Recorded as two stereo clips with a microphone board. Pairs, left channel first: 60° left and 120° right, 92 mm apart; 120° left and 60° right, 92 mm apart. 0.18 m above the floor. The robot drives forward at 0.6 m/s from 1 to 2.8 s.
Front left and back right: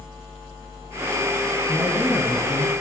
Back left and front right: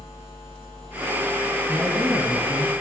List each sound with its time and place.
1.7 s a man speaking: 20° left, 1.6 m; by 2.7 s 40° left, 1.3 m